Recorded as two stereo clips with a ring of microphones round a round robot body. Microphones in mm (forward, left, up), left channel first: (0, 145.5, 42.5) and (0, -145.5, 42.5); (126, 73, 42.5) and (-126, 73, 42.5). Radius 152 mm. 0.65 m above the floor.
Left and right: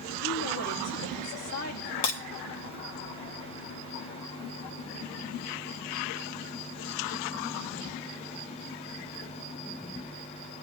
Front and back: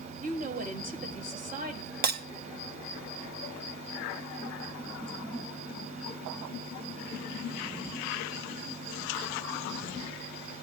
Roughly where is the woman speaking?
Behind left.